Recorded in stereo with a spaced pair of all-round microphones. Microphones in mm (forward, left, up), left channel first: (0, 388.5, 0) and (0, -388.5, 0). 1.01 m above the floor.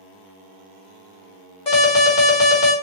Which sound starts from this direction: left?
An alarm, at 1.7 s.